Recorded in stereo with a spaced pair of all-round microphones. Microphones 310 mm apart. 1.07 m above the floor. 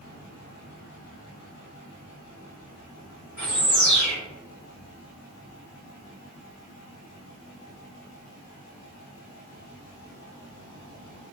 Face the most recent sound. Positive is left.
turn(degrees=65)  # may be behind; listen again after turning